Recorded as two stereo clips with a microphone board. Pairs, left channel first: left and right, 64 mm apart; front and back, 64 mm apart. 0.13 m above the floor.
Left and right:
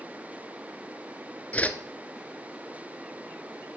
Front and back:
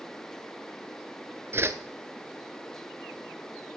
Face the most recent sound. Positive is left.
turn(degrees=150)